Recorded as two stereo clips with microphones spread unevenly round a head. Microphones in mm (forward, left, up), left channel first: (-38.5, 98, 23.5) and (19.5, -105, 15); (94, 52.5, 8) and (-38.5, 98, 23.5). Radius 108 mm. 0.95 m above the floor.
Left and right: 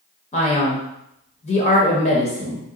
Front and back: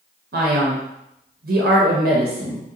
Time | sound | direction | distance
0.3 | a man speaking | 165° left | 0.6 m